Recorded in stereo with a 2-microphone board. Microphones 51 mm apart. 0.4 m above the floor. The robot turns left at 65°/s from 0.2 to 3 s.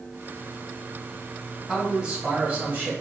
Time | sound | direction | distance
1.7 | a man speaking | 5° right | 1.7 m